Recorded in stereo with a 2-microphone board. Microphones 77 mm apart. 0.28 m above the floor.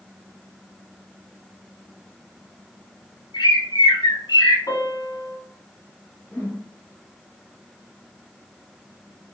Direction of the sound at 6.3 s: 20° left (ahead or behind).